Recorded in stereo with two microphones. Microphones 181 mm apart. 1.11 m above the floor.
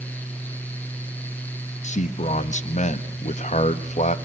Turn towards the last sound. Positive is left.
turn(degrees=40)  # may be behind; listen again after turning